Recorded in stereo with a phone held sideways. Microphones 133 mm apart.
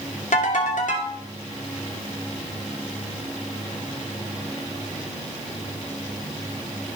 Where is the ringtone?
70° left (ahead or behind), 2.5 m.